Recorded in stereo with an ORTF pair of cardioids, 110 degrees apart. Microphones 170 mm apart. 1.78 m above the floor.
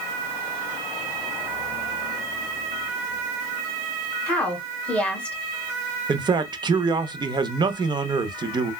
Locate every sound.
4.3 s a woman speaking: 5° left, 1.4 m
6.1 s a man speaking: 25° right, 0.6 m